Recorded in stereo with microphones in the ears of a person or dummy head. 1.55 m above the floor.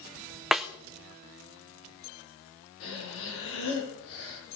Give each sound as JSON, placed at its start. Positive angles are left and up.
{"t": 0.5, "sound": "a snare drum", "side_deg": 0, "distance_m": 0.6}
{"t": 2.8, "sound": "breathing", "side_deg": 70, "distance_m": 4.5}